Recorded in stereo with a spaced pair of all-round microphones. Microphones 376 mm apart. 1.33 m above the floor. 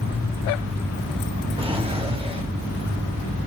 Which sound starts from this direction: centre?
A drawer, at 1.6 s.